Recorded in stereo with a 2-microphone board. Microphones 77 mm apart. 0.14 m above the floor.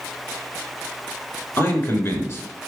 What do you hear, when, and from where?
1.6 s a man speaking: 35° left (ahead or behind), 1.6 m